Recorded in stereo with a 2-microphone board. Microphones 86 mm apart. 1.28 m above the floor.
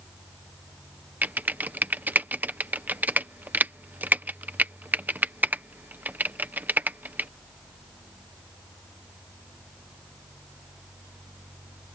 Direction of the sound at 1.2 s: 20° right (ahead or behind).